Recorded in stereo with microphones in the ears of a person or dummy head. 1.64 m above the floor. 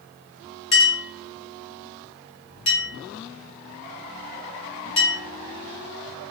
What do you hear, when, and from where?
0.7 s a clink: 30° left (ahead or behind), 1.5 m